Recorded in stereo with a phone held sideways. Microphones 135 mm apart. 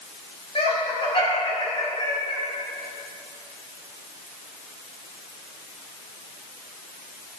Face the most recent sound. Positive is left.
turn(degrees=35)  # may be behind; listen again after turning